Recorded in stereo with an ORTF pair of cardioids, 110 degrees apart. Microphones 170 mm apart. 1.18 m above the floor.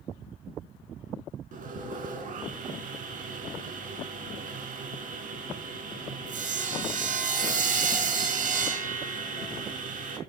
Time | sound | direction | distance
1.5 | sawing | 55° right | 3.5 m